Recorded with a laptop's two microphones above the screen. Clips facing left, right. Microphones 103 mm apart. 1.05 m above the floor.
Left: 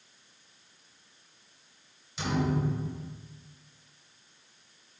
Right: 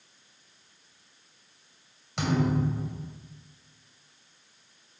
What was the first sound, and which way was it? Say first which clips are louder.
A thud: right 3 dB; 75° right (ahead or behind).